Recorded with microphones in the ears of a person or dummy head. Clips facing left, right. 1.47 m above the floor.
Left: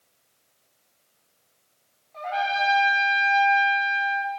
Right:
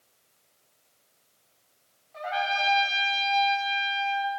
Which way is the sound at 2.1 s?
15° right (ahead or behind).